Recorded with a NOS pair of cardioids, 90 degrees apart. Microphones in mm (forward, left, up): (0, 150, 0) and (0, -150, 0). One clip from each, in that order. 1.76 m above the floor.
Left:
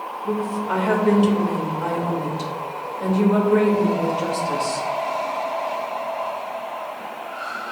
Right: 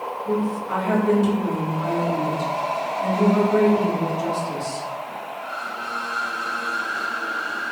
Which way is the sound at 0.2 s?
70° left.